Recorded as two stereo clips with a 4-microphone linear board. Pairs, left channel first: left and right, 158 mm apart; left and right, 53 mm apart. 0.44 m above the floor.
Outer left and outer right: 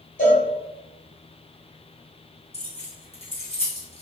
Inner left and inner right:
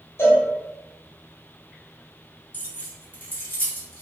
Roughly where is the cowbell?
Left.